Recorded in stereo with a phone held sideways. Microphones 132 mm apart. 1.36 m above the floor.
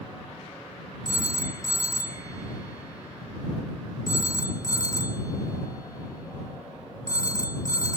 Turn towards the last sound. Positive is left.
turn(degrees=30)  # may be behind; listen again after turning